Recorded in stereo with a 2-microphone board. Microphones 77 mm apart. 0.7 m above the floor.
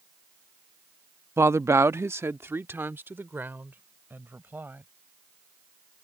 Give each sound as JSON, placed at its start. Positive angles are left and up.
{"t": 1.4, "sound": "a woman speaking", "side_deg": -30}